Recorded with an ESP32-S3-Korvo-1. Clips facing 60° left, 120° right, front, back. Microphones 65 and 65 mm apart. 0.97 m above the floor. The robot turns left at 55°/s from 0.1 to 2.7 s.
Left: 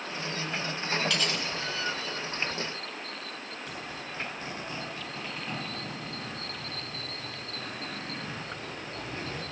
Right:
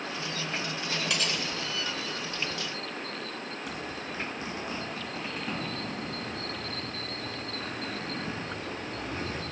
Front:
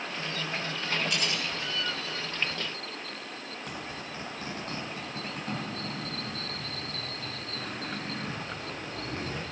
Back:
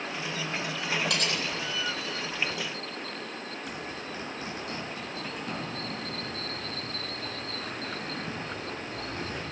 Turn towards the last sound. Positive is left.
turn(degrees=-45)